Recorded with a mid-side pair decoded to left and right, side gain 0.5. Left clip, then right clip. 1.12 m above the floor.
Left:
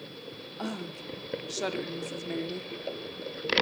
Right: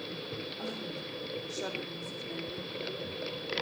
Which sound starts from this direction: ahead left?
A woman speaking, at 0.6 s.